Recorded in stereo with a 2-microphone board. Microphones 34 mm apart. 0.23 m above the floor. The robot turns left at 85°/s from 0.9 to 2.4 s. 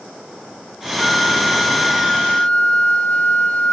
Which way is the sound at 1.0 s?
Straight behind.